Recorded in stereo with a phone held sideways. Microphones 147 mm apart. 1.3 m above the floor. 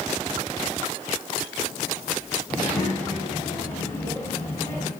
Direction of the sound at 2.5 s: 10° left (ahead or behind).